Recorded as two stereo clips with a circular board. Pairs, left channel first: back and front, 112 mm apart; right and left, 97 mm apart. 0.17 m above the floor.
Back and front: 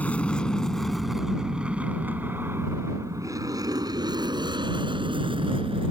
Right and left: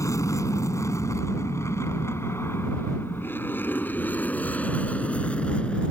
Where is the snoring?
No snoring in this recording.